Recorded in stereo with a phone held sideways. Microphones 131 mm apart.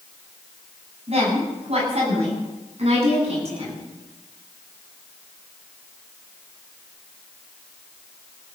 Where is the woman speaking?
50° right (ahead or behind), 8 m.